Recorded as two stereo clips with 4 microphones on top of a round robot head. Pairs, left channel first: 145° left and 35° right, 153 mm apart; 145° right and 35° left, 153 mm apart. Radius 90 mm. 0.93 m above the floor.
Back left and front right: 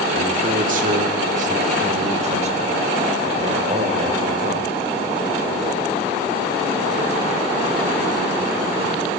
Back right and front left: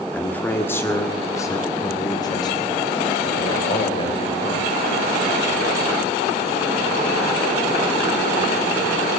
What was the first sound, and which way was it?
A man speaking, 65° right.